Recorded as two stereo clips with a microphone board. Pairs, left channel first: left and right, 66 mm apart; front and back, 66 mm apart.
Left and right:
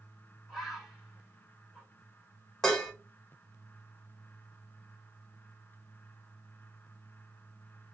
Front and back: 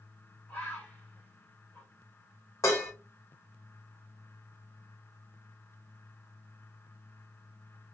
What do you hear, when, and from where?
0.5 s a bird: 5° right, 1.3 m
2.6 s dishes clattering: 10° left, 0.8 m